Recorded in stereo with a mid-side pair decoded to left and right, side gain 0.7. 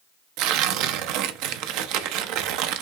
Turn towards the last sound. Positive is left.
turn(degrees=-65)